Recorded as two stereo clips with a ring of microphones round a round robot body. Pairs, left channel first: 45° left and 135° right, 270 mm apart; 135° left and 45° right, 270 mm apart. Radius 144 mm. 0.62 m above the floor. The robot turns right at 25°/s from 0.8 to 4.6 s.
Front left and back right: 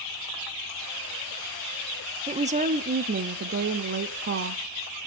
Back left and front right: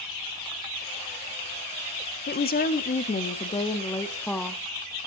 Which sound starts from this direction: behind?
A woman speaking, at 2.3 s.